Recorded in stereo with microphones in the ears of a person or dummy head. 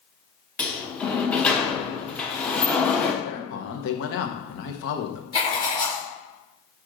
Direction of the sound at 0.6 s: 10° left (ahead or behind).